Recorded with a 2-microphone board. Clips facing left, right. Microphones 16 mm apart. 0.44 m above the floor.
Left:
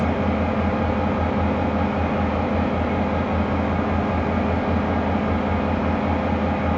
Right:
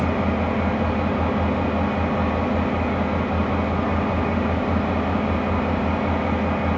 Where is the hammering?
No hammering in this recording.